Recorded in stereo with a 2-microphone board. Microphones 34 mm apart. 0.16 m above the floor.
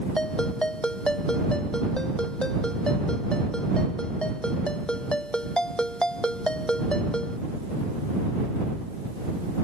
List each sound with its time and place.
0.2 s a ringtone: 25° left (ahead or behind)